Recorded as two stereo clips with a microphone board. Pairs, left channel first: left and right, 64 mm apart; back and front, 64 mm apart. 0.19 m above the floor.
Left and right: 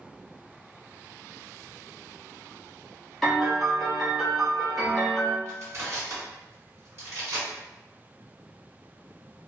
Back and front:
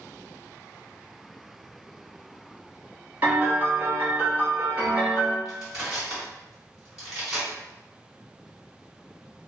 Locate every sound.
3.2 s a piano: 10° left, 1.0 m
5.5 s crushing: 80° right, 1.8 m